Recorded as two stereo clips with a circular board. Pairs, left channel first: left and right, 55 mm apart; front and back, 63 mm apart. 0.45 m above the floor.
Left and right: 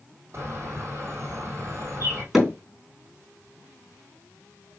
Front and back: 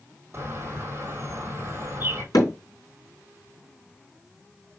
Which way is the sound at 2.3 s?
Straight ahead.